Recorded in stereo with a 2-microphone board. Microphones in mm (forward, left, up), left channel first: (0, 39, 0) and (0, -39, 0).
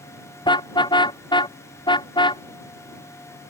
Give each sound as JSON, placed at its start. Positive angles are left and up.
{"t": 0.5, "sound": "a car horn", "side_deg": 75}